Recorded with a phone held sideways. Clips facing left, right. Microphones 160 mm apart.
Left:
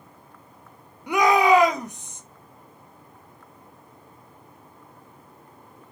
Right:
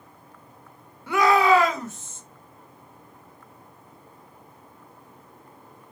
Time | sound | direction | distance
1.1 | a shout | 15° left (ahead or behind) | 0.8 m